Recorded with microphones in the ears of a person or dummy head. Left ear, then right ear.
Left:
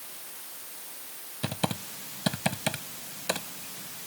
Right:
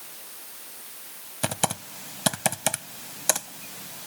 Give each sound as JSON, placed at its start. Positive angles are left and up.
{"t": 1.4, "sound": "typing on a keyboard", "side_deg": -35}